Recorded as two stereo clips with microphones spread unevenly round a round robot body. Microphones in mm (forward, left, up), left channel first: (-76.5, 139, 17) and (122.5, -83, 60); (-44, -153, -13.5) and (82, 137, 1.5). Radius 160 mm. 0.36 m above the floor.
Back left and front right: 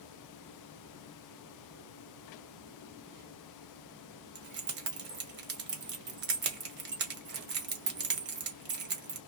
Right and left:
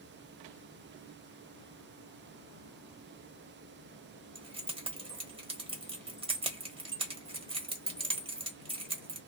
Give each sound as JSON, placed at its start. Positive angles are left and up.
{"t": 4.3, "sound": "keys jangling", "azimuth_deg": 0, "distance_m": 1.1}